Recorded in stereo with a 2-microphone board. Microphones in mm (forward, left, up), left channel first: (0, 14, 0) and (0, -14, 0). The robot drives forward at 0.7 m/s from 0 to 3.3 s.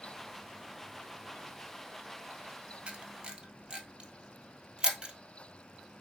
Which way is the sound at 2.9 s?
40° right (ahead or behind).